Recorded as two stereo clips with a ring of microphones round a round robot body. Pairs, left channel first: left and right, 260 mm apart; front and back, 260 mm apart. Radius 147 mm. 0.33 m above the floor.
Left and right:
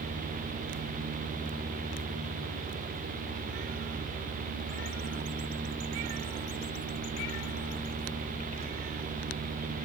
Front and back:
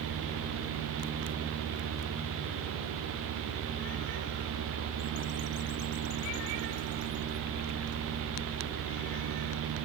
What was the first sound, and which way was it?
Only background noise.